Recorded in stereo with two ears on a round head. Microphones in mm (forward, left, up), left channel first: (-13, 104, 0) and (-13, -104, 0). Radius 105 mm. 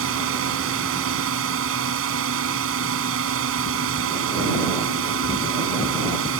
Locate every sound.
0.0 s a drone: 65° right (ahead or behind)